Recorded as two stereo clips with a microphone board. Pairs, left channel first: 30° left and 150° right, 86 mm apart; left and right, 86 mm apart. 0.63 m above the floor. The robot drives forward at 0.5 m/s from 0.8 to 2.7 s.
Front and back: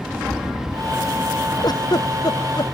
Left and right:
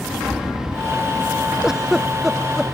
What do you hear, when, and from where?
1.6 s a giggle: 5° right